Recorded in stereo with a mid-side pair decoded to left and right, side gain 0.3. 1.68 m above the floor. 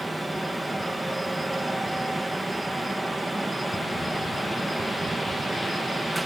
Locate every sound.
0.0 s a fan: 15° right